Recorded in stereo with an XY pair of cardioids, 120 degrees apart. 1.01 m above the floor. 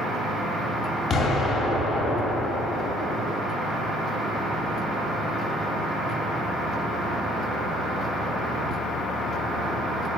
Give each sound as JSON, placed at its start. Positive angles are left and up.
{"t": 1.1, "sound": "an explosion", "azimuth_deg": 50, "distance_m": 1.9}